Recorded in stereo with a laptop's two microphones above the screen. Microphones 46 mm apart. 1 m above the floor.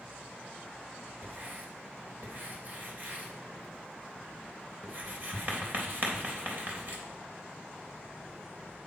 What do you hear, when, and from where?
1.2 s writing: 45° right (ahead or behind), 3.5 m